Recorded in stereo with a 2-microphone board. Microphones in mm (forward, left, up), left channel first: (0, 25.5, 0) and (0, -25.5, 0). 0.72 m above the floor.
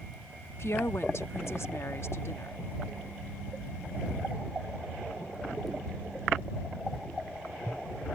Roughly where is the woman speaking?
Left.